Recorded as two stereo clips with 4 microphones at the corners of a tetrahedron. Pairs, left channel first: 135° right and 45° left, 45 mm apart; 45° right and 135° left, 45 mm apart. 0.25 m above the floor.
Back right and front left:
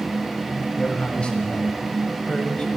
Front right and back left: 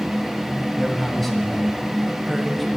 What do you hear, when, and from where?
0.8 s a man speaking: 130° right, 1.6 m